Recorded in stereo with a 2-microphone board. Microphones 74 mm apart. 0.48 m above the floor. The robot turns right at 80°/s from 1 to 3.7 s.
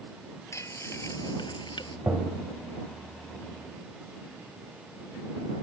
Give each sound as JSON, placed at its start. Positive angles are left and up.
{"t": 0.5, "sound": "frying", "azimuth_deg": 40}
{"t": 2.1, "sound": "tapping", "azimuth_deg": -30}